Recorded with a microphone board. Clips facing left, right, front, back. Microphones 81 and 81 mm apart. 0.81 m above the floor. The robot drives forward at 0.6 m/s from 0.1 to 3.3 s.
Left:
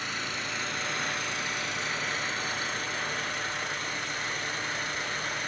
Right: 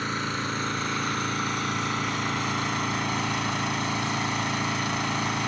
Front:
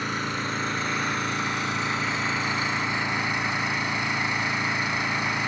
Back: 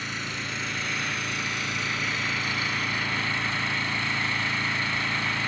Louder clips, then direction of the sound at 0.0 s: Right 6 dB, front 5 dB; 40° right.